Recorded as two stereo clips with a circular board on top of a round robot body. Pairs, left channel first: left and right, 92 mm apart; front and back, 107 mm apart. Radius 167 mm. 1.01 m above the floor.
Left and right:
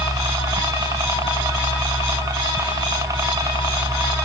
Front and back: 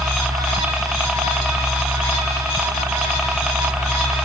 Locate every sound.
0.0 s a helicopter: 100° right